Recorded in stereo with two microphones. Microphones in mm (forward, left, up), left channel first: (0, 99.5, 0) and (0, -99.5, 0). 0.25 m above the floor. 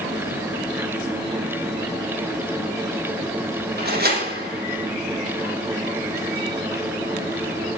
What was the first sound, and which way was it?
A door slam, 55° right (ahead or behind).